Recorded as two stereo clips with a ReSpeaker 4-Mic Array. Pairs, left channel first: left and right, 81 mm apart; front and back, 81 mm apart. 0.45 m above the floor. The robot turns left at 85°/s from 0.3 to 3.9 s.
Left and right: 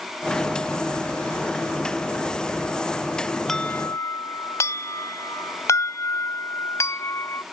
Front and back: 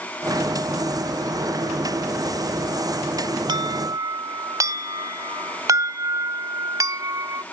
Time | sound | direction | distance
3.5 | an alarm | 175° left | ?